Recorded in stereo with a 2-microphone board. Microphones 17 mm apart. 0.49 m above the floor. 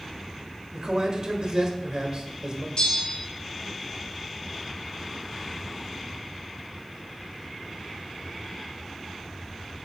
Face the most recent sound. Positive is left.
turn(degrees=65)  # may be behind; listen again after turning